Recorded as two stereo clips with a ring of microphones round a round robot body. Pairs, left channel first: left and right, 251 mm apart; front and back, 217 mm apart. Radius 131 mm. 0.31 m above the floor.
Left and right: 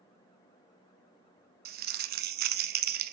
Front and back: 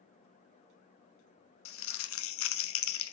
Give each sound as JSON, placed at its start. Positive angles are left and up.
{"t": 1.6, "sound": "crumpling", "azimuth_deg": -35, "distance_m": 0.7}